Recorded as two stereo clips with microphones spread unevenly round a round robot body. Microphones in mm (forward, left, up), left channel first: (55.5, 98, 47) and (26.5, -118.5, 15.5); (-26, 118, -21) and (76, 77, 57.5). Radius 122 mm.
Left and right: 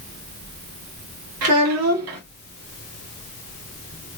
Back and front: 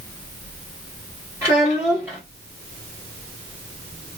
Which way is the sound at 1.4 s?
105° right.